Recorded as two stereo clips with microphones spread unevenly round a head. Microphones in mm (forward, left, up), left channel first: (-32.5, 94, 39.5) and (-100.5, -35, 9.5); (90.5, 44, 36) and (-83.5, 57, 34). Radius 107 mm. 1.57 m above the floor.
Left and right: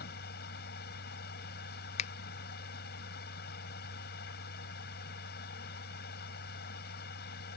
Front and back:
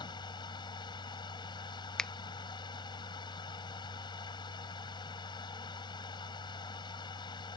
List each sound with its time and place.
0.0 s a machine running: 60° left
2.0 s a finger snap: 80° left